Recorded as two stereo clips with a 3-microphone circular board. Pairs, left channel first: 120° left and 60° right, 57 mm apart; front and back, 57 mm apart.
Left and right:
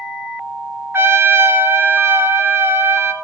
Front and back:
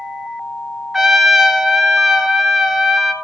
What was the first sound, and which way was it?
A trumpet, 95° right.